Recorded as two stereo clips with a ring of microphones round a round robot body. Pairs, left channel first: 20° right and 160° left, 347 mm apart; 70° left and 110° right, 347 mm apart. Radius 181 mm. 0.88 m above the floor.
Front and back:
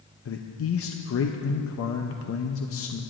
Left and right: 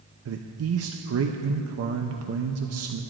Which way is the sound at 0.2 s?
70° right.